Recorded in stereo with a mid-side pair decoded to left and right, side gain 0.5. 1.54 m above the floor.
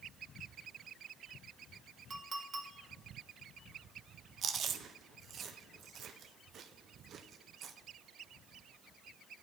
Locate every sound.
2.1 s a clink: 35° right, 1.5 m
4.4 s chewing: 50° right, 0.6 m